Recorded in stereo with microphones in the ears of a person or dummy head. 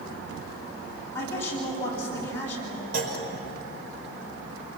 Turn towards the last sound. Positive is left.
turn(degrees=-45)  # may be behind; listen again after turning